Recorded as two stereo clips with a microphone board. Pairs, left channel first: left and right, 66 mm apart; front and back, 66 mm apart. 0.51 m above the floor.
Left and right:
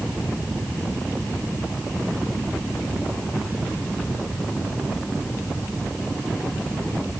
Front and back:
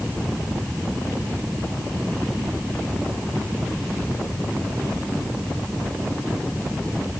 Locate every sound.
Only background noise.